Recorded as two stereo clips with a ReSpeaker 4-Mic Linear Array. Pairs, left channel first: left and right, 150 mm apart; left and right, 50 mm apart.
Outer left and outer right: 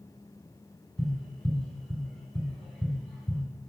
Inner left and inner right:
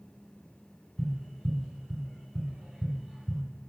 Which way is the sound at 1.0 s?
Centre (ahead or behind).